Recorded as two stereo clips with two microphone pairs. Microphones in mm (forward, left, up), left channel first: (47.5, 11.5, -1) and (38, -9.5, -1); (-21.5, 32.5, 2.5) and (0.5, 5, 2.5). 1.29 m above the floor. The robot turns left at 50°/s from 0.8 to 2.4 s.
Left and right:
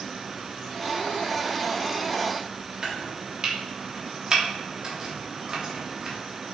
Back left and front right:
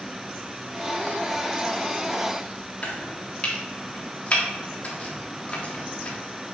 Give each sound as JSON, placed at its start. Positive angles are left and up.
{"t": 2.8, "sound": "chopping", "azimuth_deg": -175, "distance_m": 1.3}